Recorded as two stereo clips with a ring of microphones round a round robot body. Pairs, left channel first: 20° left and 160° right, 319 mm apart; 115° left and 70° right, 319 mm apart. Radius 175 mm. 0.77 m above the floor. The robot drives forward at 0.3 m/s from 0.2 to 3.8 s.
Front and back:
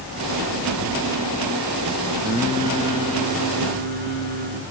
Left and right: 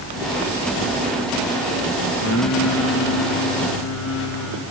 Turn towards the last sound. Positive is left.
turn(degrees=150)